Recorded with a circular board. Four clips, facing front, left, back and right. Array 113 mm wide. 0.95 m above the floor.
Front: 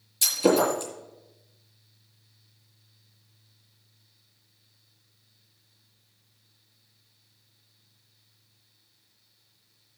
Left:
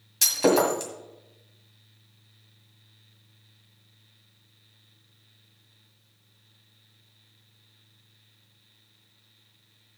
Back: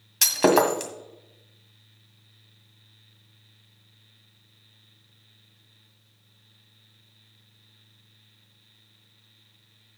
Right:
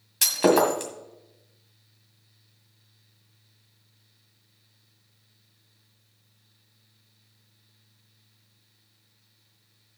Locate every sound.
0.2 s breaking glass: 165° right, 1.8 m